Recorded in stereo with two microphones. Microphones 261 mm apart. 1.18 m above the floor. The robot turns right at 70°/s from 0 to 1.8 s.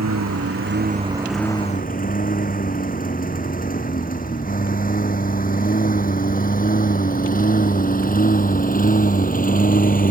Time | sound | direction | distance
0.0 | a lawn mower | 85° right | ?